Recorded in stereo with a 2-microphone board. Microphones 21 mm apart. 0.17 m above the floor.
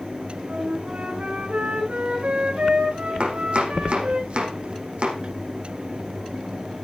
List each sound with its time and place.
0.5 s a flute: 70° right (ahead or behind), 7 m
3.2 s chopping: 60° right (ahead or behind), 5.5 m